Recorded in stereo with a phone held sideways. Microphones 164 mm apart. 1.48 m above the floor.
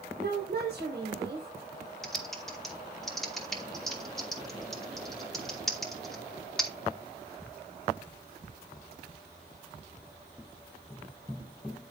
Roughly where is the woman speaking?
Right.